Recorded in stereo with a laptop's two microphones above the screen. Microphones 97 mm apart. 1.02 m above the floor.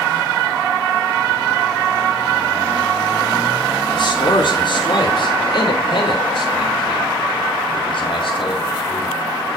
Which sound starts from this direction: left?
A man speaking, at 3.9 s.